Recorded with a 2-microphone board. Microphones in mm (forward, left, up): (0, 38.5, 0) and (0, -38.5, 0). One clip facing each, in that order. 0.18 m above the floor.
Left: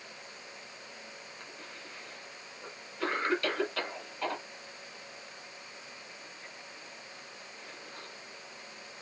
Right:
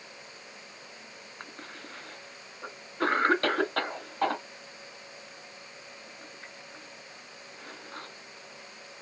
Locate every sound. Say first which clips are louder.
1.4 s a cough: right 3 dB; 50° right (ahead or behind), 1.8 m